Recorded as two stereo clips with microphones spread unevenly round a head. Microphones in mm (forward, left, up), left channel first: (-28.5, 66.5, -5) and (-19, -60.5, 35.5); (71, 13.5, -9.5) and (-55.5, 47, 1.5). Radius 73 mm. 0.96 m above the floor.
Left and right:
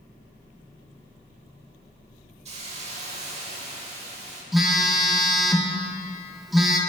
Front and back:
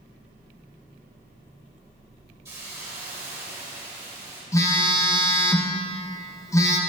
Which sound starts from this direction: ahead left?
A phone buzzing, at 4.5 s.